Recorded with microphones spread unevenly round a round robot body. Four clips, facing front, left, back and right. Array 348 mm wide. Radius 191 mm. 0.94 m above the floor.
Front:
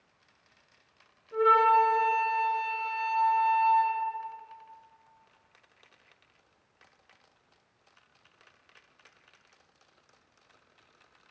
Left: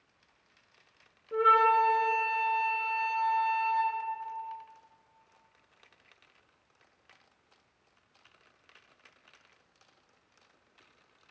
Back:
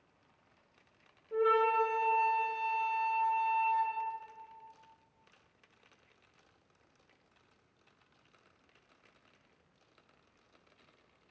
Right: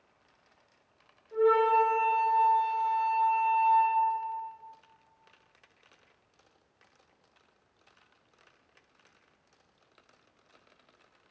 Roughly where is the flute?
Left.